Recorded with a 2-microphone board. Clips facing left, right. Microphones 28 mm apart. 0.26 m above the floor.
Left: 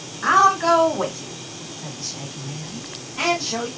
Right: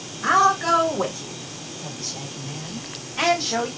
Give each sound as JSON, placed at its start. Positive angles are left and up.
{"t": 0.2, "sound": "a woman speaking", "side_deg": 40, "distance_m": 1.8}